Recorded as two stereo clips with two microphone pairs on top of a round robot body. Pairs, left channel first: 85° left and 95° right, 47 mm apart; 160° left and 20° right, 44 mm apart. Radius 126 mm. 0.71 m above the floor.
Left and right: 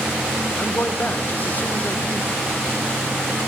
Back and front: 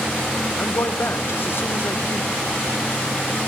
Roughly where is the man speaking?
Behind left.